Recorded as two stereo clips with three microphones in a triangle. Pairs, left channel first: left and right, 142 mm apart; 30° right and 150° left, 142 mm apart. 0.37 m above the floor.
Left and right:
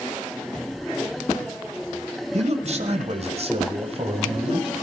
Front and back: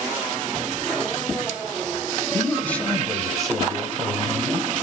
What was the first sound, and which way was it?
A man speaking, 100° right.